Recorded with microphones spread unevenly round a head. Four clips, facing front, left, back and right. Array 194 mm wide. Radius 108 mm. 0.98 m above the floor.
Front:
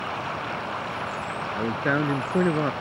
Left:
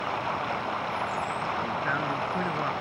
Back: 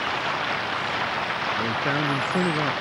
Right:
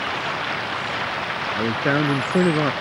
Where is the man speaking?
80° right.